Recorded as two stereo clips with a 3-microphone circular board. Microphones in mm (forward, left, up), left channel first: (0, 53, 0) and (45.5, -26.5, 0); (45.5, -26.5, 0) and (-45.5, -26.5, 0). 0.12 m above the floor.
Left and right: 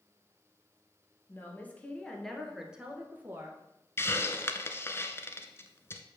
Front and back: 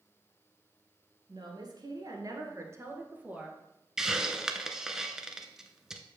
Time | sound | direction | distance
1.3 | a woman speaking | straight behind | 2 m
4.0 | a hiss | 105° left | 0.8 m